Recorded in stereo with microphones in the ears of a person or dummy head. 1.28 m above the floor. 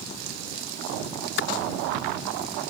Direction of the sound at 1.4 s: 70° left (ahead or behind).